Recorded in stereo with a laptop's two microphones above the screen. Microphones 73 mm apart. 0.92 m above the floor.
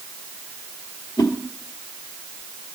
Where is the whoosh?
85° left, 1.6 m.